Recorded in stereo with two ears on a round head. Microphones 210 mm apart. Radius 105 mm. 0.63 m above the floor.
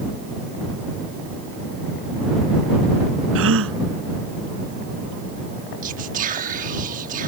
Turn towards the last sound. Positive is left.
turn(degrees=-35)  # may be behind; listen again after turning